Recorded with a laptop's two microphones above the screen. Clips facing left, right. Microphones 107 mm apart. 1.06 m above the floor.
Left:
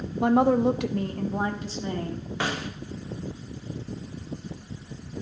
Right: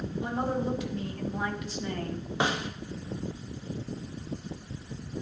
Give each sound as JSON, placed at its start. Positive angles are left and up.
{"t": 0.2, "sound": "a woman speaking", "side_deg": 60, "distance_m": 0.8}
{"t": 2.4, "sound": "a snare drum", "side_deg": -20, "distance_m": 1.0}